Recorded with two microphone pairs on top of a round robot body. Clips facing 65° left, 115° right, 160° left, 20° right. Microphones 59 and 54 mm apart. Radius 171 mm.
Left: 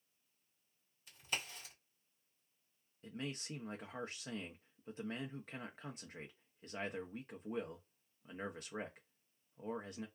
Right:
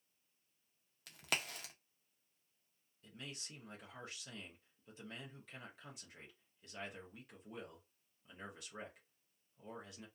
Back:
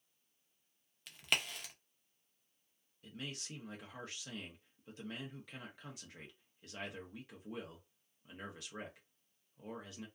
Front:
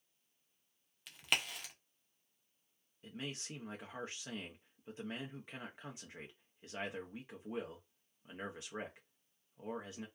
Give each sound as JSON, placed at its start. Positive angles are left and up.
{"t": 1.1, "sound": "a crack", "azimuth_deg": -110, "distance_m": 0.5}
{"t": 3.0, "sound": "a man speaking", "azimuth_deg": 50, "distance_m": 0.7}